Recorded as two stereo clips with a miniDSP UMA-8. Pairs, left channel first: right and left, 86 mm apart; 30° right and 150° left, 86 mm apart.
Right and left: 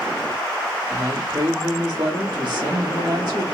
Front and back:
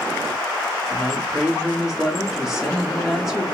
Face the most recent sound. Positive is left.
turn(degrees=65)